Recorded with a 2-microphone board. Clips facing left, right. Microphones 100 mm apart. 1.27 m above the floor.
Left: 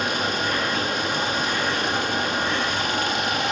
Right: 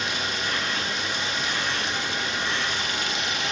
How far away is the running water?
About 1.0 m.